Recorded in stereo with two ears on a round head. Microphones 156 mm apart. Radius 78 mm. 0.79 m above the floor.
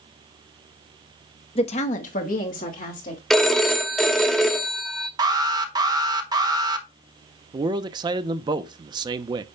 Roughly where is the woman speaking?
Left.